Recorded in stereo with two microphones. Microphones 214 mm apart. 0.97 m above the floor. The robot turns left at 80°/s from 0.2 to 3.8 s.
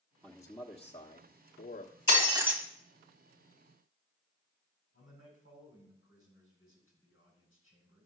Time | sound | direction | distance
0.2 | a man speaking | straight behind | 1.2 m
2.1 | breaking glass | 140° right | 1.9 m
4.9 | a man speaking | 85° left | 7 m